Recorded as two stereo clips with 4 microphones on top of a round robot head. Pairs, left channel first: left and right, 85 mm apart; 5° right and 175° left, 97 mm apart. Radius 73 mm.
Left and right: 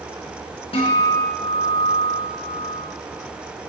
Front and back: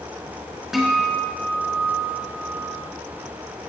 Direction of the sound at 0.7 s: 85° left.